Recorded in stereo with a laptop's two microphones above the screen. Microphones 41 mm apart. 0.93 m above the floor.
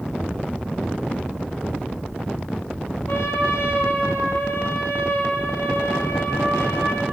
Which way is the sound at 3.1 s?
65° left (ahead or behind).